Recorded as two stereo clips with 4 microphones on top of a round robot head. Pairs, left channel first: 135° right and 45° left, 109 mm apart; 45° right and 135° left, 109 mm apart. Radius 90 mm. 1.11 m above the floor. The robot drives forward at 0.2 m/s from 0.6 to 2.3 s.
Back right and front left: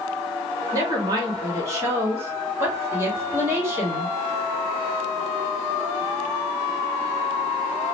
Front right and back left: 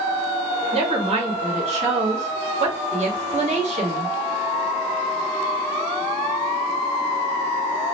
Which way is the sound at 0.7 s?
105° left.